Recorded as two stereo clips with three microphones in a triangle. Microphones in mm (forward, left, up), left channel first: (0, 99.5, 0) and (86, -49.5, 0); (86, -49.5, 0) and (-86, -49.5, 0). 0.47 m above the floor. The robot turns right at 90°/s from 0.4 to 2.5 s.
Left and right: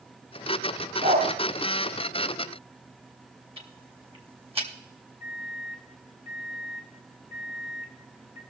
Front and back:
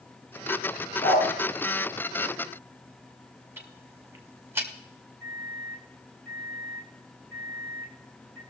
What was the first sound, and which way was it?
A dog barking, 60° right.